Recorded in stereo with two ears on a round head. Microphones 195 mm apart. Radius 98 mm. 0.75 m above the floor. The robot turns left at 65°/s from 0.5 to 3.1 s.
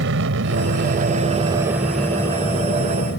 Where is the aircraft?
60° right (ahead or behind); by 3.2 s 55° left (ahead or behind).